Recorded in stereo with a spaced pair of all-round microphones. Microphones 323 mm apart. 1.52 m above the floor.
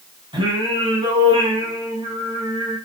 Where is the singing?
15° right (ahead or behind), 2.5 m.